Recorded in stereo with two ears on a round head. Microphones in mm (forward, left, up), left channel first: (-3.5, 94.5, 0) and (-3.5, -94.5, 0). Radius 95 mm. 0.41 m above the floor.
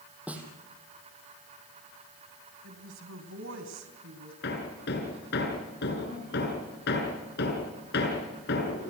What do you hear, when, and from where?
0.3 s a snare drum: 5° right (ahead or behind), 4 m
2.6 s a woman speaking: 70° right (ahead or behind), 3.5 m
4.4 s hammering: 55° left (ahead or behind), 6 m